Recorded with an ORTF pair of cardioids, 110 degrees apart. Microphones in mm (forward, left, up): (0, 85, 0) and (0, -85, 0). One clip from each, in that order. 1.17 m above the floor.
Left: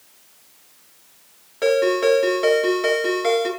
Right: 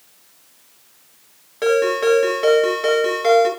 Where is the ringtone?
10° right, 6.5 m.